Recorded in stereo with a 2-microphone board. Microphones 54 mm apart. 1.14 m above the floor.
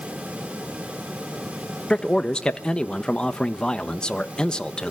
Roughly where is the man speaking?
Centre.